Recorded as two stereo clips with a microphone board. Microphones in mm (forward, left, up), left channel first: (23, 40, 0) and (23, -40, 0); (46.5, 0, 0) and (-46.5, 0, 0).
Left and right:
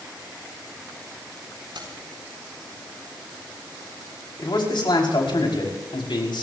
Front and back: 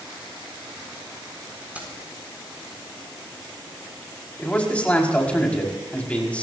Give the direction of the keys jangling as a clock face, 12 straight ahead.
4 o'clock.